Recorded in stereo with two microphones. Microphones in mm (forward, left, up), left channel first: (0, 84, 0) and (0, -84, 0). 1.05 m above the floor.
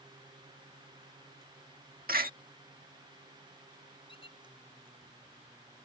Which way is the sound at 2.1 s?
60° right (ahead or behind).